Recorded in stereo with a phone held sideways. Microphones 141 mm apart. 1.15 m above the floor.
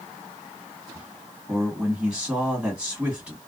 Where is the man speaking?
10° right (ahead or behind), 1.6 m.